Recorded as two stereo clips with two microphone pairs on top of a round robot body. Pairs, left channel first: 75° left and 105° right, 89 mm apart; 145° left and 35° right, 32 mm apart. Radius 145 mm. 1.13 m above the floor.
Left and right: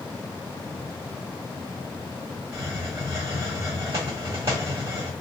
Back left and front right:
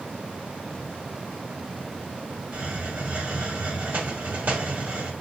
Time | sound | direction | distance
2.5 | a hiss | 55° right | 2 m